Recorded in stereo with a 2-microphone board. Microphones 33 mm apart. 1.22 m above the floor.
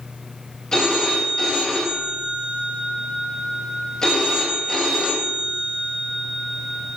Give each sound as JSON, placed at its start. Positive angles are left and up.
{"t": 0.7, "sound": "a phone ringing", "side_deg": 20, "distance_m": 4.5}